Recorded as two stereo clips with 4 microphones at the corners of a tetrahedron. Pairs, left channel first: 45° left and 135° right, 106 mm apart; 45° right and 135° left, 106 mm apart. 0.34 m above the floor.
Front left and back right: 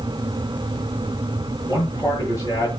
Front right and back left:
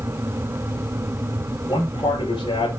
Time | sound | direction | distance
1.7 | a man speaking | 5° right | 5.5 m